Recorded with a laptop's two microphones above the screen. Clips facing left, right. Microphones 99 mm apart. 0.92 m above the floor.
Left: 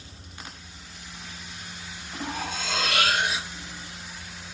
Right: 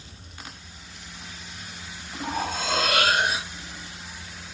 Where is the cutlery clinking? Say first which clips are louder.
Right 5 dB; 45° right (ahead or behind), 0.7 m.